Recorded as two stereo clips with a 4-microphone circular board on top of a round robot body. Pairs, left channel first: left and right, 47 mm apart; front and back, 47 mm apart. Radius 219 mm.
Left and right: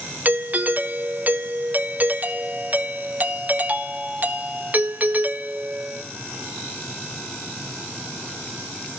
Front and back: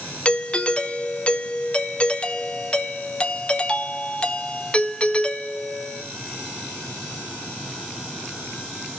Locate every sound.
0.2 s a doorbell: 55° right, 1.8 m